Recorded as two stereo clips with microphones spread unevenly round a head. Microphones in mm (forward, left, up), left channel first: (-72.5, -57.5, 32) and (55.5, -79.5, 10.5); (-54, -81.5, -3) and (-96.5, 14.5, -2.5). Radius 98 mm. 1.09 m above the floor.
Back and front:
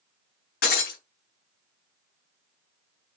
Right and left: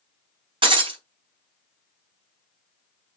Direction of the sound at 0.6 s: 150° left.